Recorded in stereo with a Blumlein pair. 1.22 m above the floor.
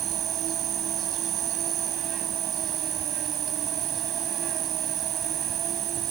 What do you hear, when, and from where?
0.0 s an insect: 30° right